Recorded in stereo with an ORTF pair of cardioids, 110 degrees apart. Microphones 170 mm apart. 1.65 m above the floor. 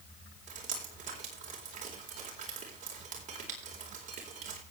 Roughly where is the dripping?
Ahead right.